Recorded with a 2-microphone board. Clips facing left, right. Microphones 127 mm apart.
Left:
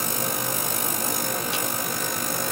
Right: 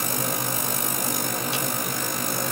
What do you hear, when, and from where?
Only background noise.